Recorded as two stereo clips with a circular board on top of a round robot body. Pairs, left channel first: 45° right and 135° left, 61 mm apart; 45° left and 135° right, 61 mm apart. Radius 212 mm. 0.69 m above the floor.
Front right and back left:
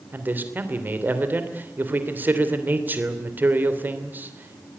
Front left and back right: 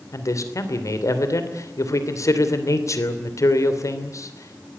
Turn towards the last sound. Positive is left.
turn(degrees=75)